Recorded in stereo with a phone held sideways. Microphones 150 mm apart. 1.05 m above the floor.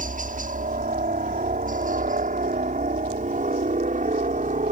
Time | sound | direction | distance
0.0 | a helicopter | 60° right (ahead or behind) | ?